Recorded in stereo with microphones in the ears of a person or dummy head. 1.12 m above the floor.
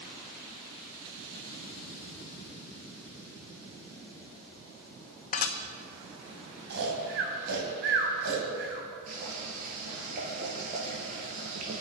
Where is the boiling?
45° right (ahead or behind), 4 m.